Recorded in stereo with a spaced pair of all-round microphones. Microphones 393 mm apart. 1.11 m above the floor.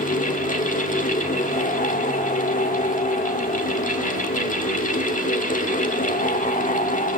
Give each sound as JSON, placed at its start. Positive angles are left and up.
{"t": 0.0, "sound": "a fan", "side_deg": 20, "distance_m": 1.4}